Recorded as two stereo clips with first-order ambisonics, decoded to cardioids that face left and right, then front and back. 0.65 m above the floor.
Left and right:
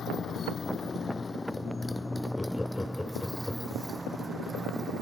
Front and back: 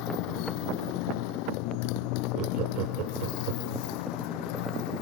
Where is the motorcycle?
25° left; by 5.0 s 15° right.